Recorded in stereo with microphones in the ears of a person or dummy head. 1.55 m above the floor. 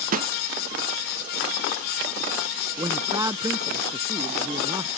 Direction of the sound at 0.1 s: 40° right (ahead or behind).